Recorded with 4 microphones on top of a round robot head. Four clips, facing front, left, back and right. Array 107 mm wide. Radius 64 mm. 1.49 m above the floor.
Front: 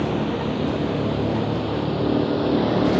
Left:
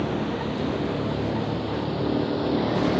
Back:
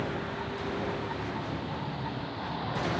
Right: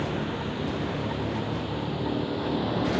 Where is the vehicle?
15° left.